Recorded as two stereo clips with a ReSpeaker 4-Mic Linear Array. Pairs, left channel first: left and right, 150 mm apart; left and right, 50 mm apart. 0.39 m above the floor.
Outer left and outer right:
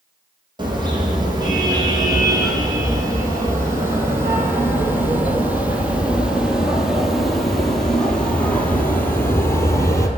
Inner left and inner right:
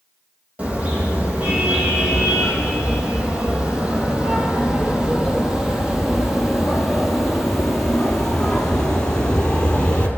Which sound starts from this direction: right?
A car horn, at 0.6 s.